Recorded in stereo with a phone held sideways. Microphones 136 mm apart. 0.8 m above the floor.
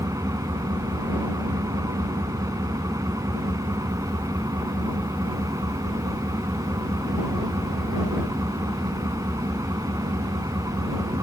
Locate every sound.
0.0 s an engine running: 25° right (ahead or behind)